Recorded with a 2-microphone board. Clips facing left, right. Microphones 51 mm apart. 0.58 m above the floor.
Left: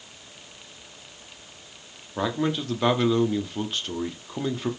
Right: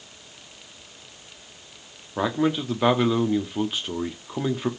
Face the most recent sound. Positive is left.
turn(degrees=-10)  # may be behind; listen again after turning